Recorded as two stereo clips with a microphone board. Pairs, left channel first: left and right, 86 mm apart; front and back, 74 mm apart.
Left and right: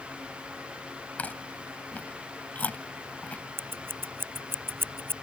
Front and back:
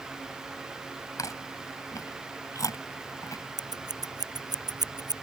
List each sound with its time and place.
1.2 s chewing: 20° left
3.6 s scissors: 155° right